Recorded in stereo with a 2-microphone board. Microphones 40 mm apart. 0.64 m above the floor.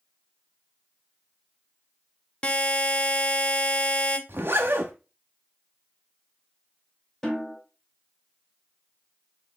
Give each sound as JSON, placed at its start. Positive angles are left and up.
{"t": 2.4, "sound": "a buzzer", "side_deg": 30, "distance_m": 0.6}
{"t": 4.3, "sound": "a zipper", "side_deg": -55, "distance_m": 1.0}
{"t": 7.2, "sound": "a snare drum", "side_deg": 5, "distance_m": 2.5}